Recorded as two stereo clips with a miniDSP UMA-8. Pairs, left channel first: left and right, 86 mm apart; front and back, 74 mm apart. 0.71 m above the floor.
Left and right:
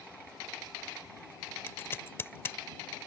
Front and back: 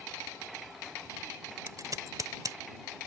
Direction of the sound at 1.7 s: 150° left.